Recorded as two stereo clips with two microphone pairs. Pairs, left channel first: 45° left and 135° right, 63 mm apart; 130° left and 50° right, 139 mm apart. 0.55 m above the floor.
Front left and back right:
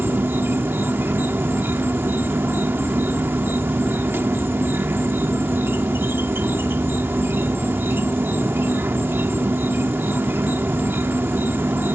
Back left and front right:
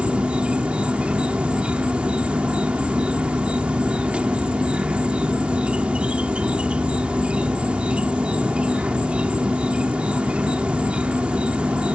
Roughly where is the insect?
Behind right.